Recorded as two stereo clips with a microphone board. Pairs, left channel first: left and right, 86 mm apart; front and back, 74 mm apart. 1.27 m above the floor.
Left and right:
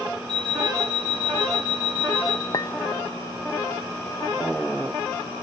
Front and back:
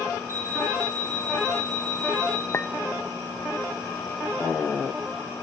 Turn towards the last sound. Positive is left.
turn(degrees=55)